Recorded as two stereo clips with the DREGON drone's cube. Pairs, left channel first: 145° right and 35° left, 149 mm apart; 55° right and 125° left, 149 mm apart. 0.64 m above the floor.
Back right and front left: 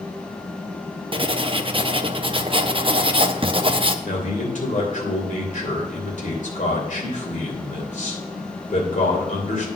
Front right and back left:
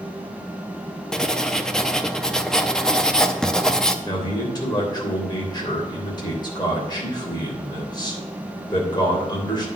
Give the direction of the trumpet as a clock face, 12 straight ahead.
No trumpet in this recording.